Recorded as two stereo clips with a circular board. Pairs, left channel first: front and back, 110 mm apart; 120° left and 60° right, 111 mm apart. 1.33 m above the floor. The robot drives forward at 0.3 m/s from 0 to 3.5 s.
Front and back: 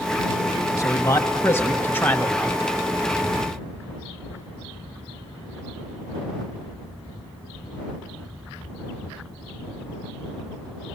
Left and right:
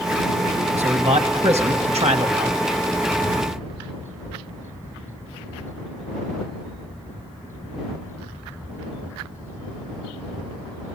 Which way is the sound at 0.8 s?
60° right.